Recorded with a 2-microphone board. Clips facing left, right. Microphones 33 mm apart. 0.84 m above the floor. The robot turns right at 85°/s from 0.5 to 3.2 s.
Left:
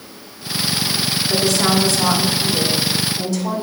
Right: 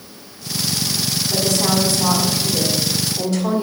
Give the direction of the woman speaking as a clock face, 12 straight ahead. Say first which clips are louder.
Left 2 dB; 10 o'clock.